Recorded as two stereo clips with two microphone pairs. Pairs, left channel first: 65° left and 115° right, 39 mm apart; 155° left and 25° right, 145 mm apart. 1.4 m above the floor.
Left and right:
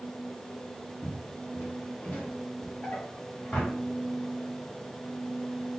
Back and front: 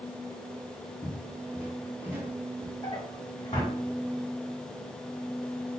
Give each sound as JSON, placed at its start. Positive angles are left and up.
{"t": 1.0, "sound": "footsteps", "azimuth_deg": 50, "distance_m": 1.7}
{"t": 2.8, "sound": "a drawer", "azimuth_deg": 110, "distance_m": 2.5}